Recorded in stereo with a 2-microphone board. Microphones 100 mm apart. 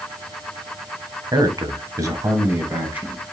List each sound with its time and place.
1.3 s a man speaking: 40° right (ahead or behind), 1.5 m; by 3.2 s 15° right (ahead or behind), 2.5 m